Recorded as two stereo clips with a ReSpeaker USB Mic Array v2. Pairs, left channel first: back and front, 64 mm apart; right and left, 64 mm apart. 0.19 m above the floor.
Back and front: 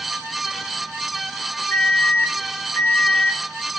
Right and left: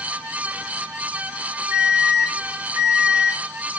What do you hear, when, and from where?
1.7 s an alarm: 130° left, 3 m